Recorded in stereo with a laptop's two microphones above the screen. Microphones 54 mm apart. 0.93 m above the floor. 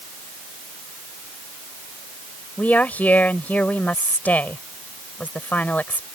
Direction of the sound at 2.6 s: 30° left (ahead or behind).